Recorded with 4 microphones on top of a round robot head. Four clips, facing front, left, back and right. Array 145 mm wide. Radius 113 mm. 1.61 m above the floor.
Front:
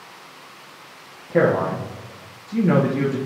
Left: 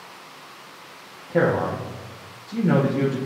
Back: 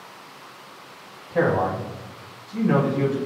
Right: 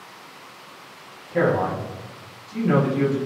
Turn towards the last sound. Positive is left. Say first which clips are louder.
# even, front 3 dB
turn(degrees=30)